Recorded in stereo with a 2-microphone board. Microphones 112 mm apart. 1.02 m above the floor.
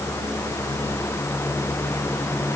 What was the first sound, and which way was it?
Only background noise.